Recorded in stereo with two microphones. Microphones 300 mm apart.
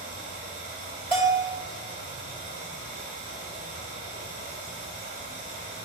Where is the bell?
35° left (ahead or behind), 2.5 m.